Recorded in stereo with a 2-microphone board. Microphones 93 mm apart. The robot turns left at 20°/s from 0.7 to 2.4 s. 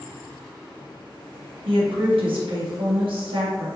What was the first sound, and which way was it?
A woman speaking, 85° right.